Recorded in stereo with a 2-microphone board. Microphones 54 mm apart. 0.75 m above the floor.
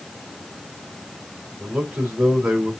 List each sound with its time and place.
1.6 s a man speaking: 25° right (ahead or behind), 2.5 m